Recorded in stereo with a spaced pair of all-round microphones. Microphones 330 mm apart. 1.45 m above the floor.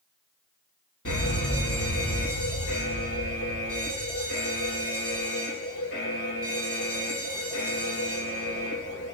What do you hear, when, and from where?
1.1 s a fire alarm: 70° left (ahead or behind), 4.5 m